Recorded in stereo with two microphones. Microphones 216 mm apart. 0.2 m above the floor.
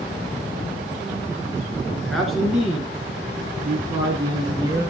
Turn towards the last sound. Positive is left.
turn(degrees=-20)  # may be behind; listen again after turning